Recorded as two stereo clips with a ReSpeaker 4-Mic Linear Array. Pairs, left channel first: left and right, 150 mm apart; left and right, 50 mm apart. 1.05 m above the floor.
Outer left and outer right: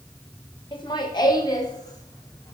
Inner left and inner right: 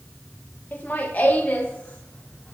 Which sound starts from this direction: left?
Laughter, at 0.7 s.